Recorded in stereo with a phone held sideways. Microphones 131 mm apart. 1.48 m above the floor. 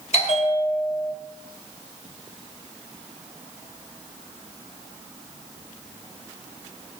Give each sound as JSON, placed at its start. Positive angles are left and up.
{"t": 0.1, "sound": "a bell", "side_deg": 55, "distance_m": 1.6}